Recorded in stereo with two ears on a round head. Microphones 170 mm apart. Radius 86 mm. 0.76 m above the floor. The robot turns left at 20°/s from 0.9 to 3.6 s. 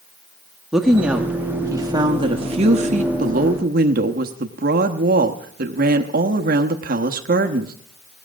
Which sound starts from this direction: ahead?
A woman speaking, at 0.7 s.